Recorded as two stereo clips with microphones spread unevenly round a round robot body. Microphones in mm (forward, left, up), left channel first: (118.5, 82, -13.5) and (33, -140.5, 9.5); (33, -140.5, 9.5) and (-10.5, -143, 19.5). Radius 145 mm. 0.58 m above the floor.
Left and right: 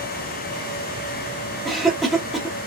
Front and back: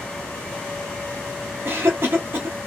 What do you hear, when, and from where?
1.6 s a cough: 150° left, 0.7 m